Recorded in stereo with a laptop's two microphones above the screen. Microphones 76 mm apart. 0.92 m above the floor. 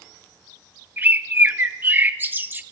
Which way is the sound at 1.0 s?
25° right (ahead or behind).